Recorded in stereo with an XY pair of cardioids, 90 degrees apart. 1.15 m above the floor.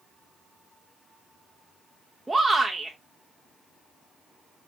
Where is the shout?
15° right, 0.9 m.